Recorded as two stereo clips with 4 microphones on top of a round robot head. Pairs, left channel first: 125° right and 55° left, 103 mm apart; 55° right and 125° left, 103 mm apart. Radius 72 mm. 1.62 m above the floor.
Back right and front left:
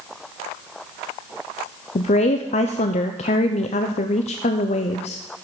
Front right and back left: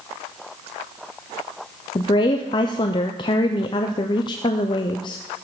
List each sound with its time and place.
1.9 s a woman speaking: 100° right, 0.6 m